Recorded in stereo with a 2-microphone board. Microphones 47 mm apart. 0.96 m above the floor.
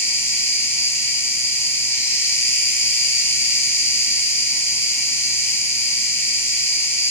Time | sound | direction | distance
0.0 | an insect | 65° left (ahead or behind) | 0.7 m